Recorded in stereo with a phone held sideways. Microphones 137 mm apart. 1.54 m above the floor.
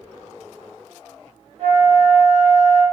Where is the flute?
45° right (ahead or behind), 1.6 m.